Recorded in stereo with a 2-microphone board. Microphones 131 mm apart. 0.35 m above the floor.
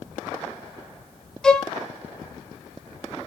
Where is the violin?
5° left (ahead or behind), 0.5 m.